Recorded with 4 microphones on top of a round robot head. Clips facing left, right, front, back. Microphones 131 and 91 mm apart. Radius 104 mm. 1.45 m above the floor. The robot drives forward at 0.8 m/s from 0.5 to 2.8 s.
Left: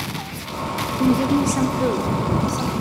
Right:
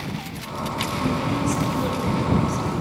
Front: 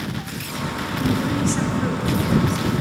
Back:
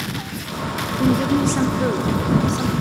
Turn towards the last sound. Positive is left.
turn(degrees=155)